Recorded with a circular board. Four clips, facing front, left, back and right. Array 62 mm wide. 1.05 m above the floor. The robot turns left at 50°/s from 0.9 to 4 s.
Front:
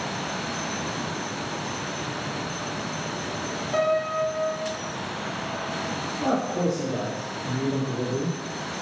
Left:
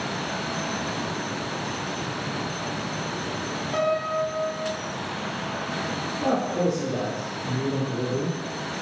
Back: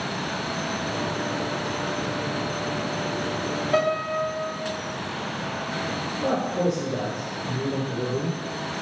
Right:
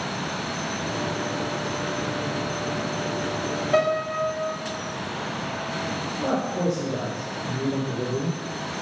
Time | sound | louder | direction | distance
3.7 | a piano | right 2 dB, front 1 dB | 140° right | 0.8 m
6.2 | a man speaking | left 1 dB, back 1 dB | 30° left | 1.9 m